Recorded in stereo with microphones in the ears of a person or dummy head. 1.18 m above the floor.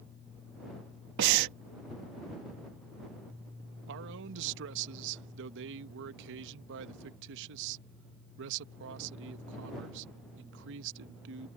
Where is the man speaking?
70° right (ahead or behind).